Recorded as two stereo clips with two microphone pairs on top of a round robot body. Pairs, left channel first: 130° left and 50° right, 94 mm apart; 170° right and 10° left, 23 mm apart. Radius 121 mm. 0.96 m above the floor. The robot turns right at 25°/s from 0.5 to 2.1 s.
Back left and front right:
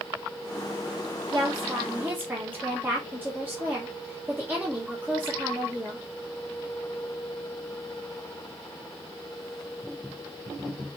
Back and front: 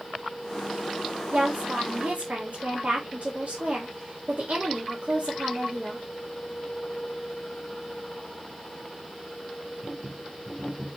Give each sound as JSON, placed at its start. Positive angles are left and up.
{"t": 1.3, "sound": "a woman speaking", "azimuth_deg": 0, "distance_m": 1.1}